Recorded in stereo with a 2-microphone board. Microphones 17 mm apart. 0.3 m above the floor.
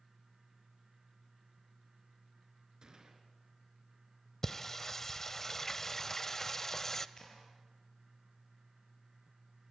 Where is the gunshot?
45° right (ahead or behind), 3.5 m.